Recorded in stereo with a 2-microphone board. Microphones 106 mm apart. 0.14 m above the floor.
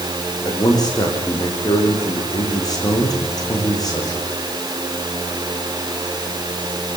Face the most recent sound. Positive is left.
turn(degrees=40)  # may be behind; listen again after turning